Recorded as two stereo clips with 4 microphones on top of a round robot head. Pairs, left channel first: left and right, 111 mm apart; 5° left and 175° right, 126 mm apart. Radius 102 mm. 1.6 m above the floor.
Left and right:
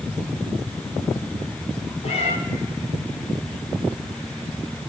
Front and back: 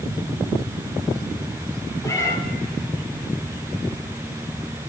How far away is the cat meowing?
About 3 m.